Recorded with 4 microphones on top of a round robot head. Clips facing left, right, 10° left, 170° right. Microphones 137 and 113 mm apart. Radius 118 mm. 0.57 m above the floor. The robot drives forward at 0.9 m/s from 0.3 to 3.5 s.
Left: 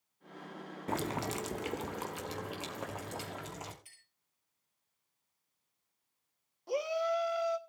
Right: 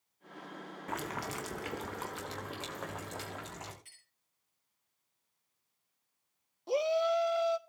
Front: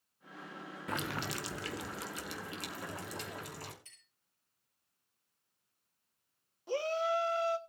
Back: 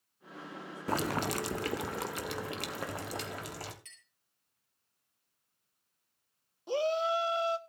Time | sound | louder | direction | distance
0.9 | boiling | left 4 dB, back 7 dB | 140° left | 1.0 m
3.9 | a clink | even, back 6 dB | 175° left | 7.5 m
6.7 | a shout | right 3 dB, back 3 dB | 125° right | 1.2 m